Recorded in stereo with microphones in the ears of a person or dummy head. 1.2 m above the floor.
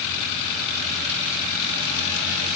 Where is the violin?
No violin in this recording.